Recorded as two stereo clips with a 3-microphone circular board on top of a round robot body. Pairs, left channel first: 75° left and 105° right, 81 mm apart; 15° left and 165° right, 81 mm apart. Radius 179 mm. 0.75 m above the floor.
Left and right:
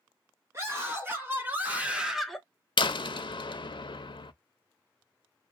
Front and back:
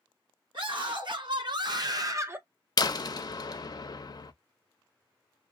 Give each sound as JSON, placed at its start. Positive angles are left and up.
{"t": 0.5, "sound": "a scream", "azimuth_deg": -165, "distance_m": 1.7}
{"t": 2.8, "sound": "a door slam", "azimuth_deg": 55, "distance_m": 0.6}